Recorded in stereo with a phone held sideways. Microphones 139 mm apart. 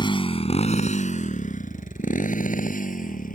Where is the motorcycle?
35° left (ahead or behind); by 3.4 s 85° left.